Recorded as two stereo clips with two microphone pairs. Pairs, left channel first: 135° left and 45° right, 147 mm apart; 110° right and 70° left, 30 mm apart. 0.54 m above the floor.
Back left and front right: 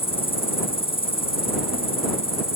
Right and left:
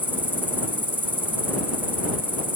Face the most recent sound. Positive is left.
turn(degrees=85)